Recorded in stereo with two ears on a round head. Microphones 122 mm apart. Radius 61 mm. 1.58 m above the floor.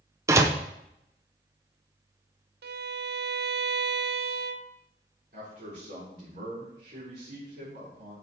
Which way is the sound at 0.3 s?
20° right (ahead or behind).